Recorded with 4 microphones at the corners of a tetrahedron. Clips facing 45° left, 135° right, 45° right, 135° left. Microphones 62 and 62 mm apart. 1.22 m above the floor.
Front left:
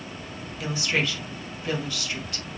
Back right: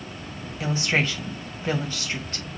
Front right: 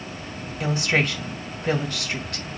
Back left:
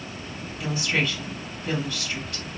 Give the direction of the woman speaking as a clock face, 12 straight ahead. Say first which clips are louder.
Back right 2 dB, front right 3 dB; 3 o'clock.